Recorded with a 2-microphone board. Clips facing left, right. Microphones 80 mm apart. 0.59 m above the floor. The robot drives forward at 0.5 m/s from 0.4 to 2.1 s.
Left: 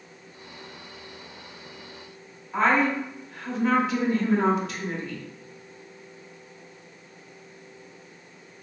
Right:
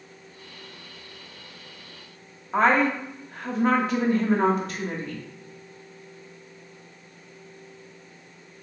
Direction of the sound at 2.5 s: 45° right (ahead or behind).